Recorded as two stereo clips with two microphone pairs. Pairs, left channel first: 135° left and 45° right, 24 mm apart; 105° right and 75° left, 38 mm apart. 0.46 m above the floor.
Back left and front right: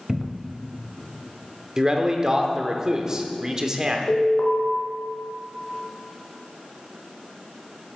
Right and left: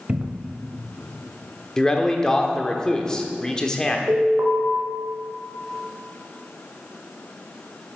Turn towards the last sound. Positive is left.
turn(degrees=100)